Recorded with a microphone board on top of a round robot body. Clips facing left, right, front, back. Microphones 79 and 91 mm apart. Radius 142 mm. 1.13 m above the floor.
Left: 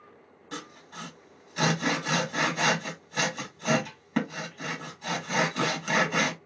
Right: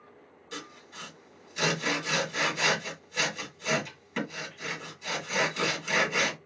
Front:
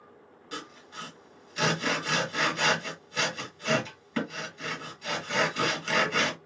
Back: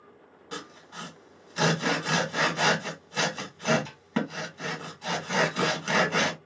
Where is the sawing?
125° left, 1.6 m.